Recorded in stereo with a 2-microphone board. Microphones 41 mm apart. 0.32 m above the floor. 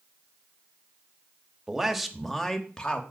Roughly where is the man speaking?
Centre.